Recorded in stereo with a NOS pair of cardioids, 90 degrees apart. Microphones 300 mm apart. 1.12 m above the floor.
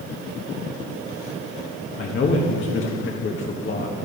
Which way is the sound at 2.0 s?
40° left.